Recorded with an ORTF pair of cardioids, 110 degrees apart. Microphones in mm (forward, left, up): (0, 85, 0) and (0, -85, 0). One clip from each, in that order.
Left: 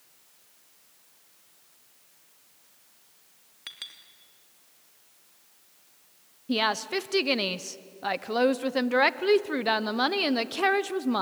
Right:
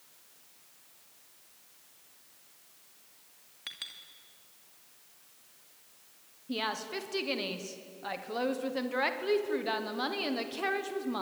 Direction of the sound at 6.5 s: 45° left.